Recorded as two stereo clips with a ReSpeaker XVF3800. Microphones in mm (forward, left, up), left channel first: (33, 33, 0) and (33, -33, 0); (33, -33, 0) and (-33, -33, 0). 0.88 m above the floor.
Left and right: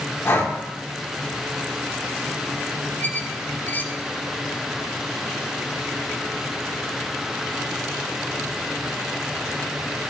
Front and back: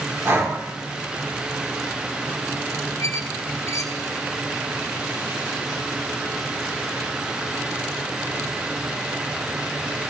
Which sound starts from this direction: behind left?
Breathing, at 0.2 s.